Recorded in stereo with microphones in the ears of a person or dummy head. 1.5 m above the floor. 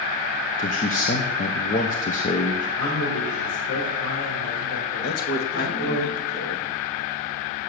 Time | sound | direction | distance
0.6 | a man speaking | 35° left (ahead or behind) | 1.0 m
2.8 | a man speaking | 80° left | 4.5 m
5.0 | a man speaking | 50° left (ahead or behind) | 1.7 m